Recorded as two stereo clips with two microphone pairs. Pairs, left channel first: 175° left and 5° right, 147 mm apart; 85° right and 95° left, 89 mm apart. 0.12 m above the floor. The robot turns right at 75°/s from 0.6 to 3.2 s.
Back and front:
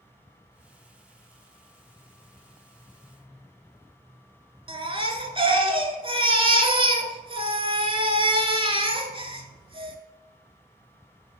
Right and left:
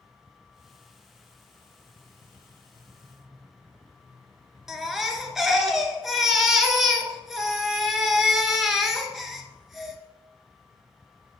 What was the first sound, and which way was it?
A baby crying, 5° left.